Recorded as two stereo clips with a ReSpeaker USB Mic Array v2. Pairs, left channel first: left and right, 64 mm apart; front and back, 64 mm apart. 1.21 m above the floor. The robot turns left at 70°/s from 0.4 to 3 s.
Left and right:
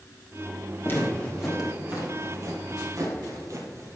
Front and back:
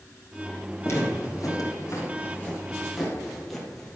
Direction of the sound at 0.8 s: 45° left.